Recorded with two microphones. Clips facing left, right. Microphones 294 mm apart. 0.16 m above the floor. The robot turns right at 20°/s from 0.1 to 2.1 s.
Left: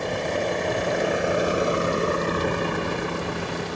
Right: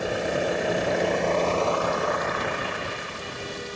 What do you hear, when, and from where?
0.0 s a vehicle: 5° right (ahead or behind); by 3.8 s 75° left (ahead or behind)